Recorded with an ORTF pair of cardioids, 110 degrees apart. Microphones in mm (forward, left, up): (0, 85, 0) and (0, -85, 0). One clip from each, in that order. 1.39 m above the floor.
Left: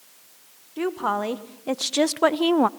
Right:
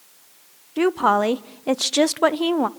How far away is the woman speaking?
About 1.3 m.